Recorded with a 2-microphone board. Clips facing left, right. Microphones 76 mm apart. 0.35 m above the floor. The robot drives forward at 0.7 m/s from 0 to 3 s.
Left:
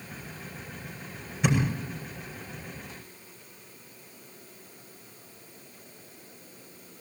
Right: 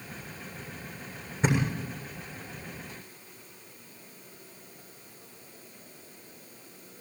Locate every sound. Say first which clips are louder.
1.4 s a thud: left 1 dB; 35° right (ahead or behind), 7 m